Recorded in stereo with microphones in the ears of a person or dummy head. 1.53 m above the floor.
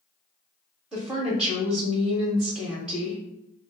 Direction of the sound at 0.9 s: 5° right (ahead or behind).